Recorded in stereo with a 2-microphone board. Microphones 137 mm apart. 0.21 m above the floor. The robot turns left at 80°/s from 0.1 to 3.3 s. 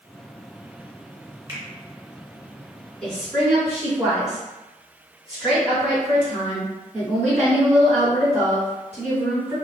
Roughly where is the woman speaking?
Centre.